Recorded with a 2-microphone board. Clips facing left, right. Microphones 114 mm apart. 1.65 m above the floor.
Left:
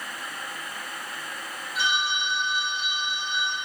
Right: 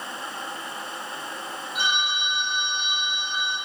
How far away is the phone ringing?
About 2 m.